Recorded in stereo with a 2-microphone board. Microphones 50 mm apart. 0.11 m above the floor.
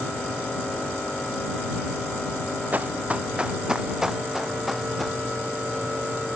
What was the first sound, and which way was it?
Running footsteps, 30° right (ahead or behind).